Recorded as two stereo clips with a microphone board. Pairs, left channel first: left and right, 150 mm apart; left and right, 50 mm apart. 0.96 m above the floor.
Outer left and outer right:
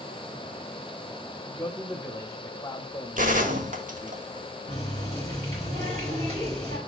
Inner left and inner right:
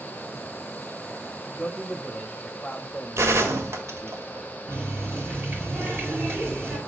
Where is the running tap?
45° right (ahead or behind), 5 m.